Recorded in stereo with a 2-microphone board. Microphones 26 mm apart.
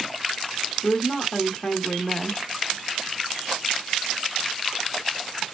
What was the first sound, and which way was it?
A woman speaking, 25° left (ahead or behind).